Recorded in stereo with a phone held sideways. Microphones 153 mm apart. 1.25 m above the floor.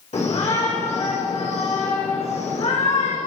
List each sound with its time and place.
0.1 s a shout: 50° left (ahead or behind), 6 m